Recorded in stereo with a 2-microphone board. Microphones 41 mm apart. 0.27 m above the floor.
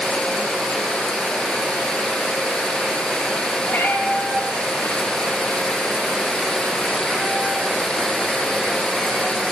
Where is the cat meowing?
60° left (ahead or behind), 4 m; by 9.4 s 45° left (ahead or behind), 8.5 m.